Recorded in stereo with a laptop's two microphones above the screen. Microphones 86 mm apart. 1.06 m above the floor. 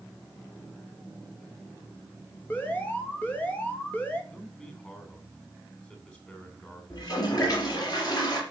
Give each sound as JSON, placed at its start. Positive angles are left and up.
{"t": 2.5, "sound": "an alarm", "side_deg": 20, "distance_m": 2.5}
{"t": 4.3, "sound": "a man speaking", "side_deg": 20, "distance_m": 3.0}
{"t": 6.9, "sound": "a toilet flushing", "side_deg": 50, "distance_m": 4.0}